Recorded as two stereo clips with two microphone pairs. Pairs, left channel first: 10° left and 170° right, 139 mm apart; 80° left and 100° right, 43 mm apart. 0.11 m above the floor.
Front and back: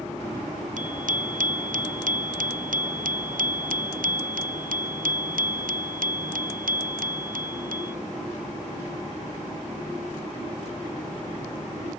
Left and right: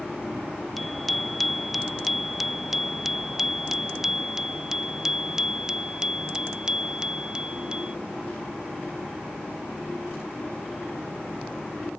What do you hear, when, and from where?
0.8 s a bicycle bell: 170° left; by 7.9 s 170° right